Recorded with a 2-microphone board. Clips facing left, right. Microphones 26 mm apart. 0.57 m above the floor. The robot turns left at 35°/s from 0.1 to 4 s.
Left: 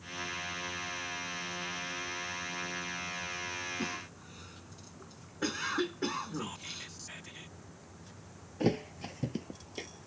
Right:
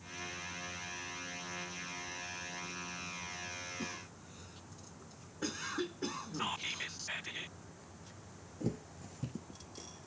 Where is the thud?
75° left (ahead or behind).